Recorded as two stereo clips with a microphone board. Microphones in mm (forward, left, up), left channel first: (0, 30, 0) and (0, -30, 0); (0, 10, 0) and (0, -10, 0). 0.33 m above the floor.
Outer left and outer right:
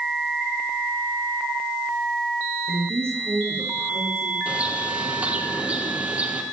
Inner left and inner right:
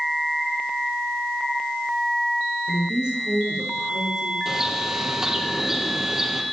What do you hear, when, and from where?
2.7 s a woman speaking: 50° right (ahead or behind), 5.5 m; by 4.3 s 40° right (ahead or behind), 4.5 m
4.5 s a bird: 20° right (ahead or behind), 3 m